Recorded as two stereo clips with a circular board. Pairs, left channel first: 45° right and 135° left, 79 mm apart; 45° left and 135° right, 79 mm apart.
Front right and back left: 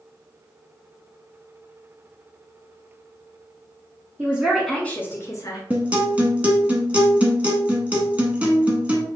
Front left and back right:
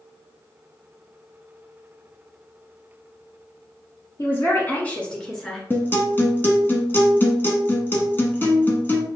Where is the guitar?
80° left, 1.0 m.